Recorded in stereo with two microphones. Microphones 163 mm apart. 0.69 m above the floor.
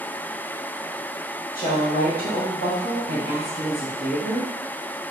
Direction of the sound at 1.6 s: 60° left (ahead or behind).